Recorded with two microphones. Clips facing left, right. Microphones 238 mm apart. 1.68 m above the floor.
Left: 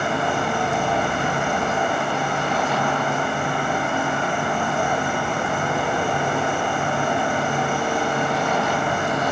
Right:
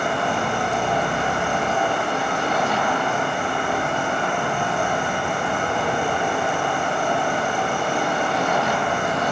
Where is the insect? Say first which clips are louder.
Even; 5° left (ahead or behind), 1.6 m.